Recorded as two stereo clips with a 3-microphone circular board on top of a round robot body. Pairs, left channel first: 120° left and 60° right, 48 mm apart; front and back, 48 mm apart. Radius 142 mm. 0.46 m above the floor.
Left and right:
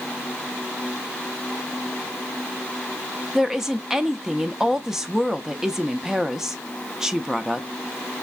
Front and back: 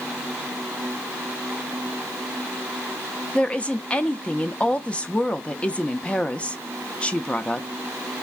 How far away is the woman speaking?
About 0.7 m.